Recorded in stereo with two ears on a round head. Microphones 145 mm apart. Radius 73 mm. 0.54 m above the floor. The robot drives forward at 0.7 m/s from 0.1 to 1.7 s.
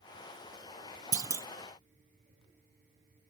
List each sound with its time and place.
1.1 s a clunk: 25° right (ahead or behind), 0.6 m; by 1.5 s 15° right (ahead or behind), 0.8 m